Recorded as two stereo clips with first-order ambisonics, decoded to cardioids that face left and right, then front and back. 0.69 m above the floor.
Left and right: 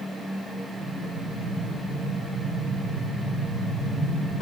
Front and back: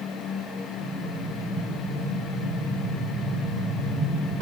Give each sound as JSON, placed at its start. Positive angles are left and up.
{"t": 0.8, "sound": "an explosion", "azimuth_deg": 140, "distance_m": 1.7}